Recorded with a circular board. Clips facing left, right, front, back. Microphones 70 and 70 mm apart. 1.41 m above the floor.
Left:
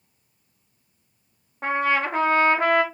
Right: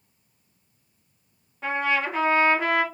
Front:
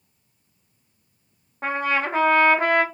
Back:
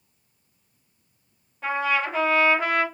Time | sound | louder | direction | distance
1.6 | a trumpet | left 2 dB, front 1 dB | 45° left | 1.3 m